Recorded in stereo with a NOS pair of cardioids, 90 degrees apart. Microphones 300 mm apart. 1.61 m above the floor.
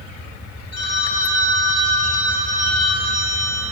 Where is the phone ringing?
60° left, 2.5 m.